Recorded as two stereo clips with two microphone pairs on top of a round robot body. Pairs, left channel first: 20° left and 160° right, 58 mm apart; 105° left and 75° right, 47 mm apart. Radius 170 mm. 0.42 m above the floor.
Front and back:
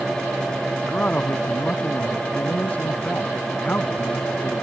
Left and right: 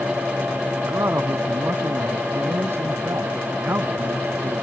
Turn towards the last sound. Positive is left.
turn(degrees=-45)